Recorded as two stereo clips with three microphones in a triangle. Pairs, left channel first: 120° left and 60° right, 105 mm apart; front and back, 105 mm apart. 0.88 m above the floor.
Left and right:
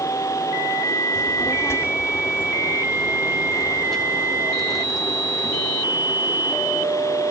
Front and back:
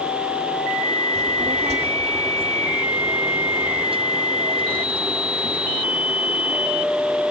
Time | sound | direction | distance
1.1 | a child speaking | 170° left | ?